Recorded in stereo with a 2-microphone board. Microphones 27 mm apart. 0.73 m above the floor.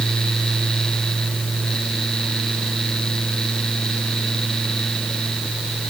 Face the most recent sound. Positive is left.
No sound to turn to.